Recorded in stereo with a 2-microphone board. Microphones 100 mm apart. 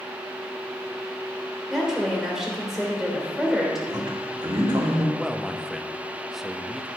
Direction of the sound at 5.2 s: Centre (ahead or behind).